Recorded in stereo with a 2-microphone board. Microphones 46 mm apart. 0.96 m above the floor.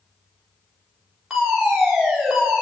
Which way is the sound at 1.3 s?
10° right (ahead or behind).